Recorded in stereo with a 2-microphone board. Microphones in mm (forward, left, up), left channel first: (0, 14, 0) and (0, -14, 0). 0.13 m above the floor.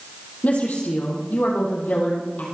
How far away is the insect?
I don't hear an insect.